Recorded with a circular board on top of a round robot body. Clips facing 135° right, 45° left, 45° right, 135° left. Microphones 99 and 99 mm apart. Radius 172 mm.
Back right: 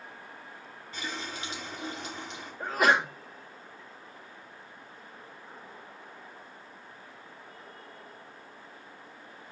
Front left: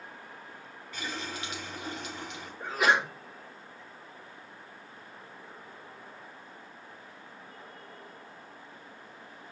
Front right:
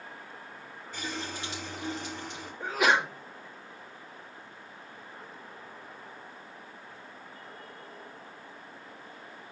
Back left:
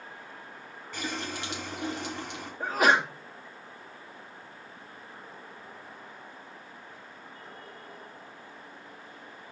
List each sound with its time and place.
0.9 s a running tap: 165° left, 1.1 m
2.6 s a sneeze: 175° right, 2.0 m